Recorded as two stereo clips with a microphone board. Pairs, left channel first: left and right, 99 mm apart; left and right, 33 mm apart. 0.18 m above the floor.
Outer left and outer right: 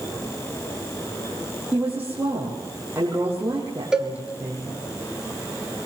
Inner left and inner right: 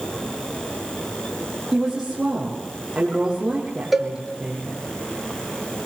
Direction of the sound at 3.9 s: 5° right (ahead or behind).